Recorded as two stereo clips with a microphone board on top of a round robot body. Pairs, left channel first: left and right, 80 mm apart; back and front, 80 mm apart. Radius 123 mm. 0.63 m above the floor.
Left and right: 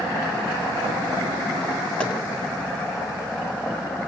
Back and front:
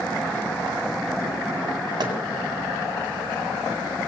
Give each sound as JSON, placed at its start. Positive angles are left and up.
{"t": 2.0, "sound": "tapping", "azimuth_deg": 15, "distance_m": 2.0}